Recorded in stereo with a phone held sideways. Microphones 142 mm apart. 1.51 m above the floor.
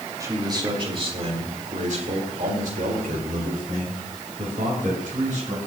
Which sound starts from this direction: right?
A man speaking, at 0.2 s.